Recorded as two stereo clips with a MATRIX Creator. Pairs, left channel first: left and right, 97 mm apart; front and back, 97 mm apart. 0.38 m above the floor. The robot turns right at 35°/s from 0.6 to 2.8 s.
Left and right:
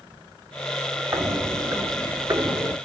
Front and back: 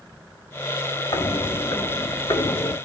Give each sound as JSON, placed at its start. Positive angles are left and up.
{"t": 1.1, "sound": "footsteps", "azimuth_deg": -30, "distance_m": 0.9}